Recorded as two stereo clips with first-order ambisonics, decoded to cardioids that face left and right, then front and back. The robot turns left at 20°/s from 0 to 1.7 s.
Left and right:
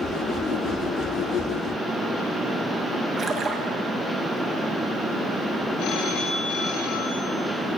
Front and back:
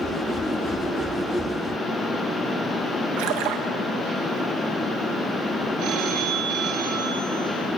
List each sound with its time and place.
3.2 s a splash: 160° right, 2 m
5.8 s a phone ringing: 130° left, 3.5 m